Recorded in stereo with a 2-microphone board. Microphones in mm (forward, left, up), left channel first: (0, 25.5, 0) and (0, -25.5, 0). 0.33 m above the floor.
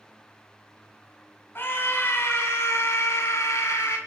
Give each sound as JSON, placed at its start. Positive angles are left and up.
{"t": 1.6, "sound": "a scream", "side_deg": 45, "distance_m": 3.0}